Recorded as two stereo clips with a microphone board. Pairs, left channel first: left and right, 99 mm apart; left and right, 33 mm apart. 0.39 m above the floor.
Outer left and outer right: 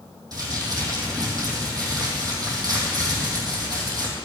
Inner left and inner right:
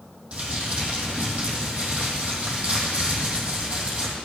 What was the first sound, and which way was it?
Crumpling, 40° right (ahead or behind).